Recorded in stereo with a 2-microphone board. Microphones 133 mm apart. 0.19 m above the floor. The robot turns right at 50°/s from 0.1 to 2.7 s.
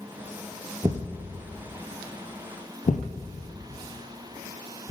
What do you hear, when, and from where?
0.8 s a thud: 25° right (ahead or behind), 0.7 m; by 4.9 s 65° left (ahead or behind), 0.7 m